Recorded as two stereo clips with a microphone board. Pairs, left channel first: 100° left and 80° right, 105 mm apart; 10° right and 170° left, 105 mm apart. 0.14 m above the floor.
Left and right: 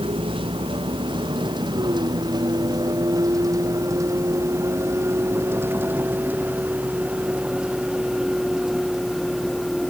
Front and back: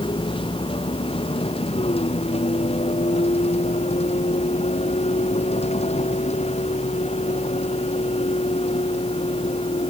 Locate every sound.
0.0 s a vehicle: 45° right; by 9.9 s 10° left